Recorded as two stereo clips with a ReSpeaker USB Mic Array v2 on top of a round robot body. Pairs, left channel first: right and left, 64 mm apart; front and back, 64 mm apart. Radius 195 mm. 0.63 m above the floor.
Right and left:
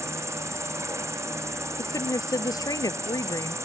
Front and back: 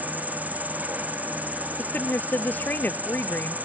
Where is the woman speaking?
65° right.